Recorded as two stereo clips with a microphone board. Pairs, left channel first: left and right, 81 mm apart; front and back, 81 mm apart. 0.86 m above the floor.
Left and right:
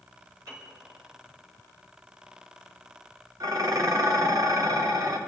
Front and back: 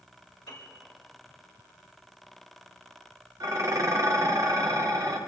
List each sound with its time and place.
0.5 s a piano: 40° right, 5.5 m
3.4 s dishes clattering: 135° right, 1.2 m